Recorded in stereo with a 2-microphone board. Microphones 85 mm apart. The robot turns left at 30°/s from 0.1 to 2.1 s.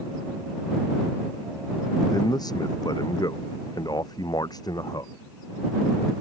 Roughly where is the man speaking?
Left.